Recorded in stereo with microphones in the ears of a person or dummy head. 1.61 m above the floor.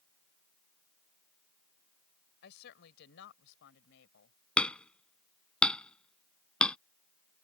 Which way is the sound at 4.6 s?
5° left (ahead or behind).